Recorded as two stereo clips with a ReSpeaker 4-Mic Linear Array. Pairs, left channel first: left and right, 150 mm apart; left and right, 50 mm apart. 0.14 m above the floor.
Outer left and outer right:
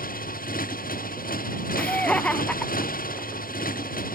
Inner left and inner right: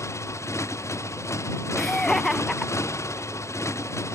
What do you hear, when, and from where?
0.0 s a motorcycle: 65° left (ahead or behind)
1.8 s laughter: 5° left (ahead or behind)